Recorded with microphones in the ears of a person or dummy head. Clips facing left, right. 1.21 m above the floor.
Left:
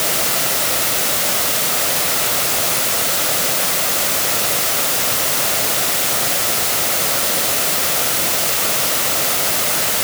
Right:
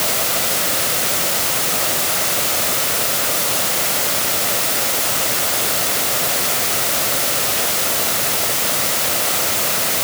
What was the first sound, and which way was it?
Only background noise.